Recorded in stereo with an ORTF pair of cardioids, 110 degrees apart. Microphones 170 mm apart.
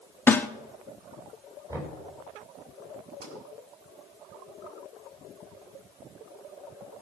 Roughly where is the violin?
No violin in this recording.